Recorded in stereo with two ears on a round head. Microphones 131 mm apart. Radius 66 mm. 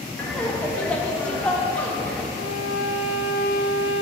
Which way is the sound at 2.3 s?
80° left.